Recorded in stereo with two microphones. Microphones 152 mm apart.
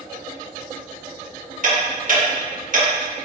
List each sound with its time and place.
1.6 s ticking: 60° right (ahead or behind), 1.3 m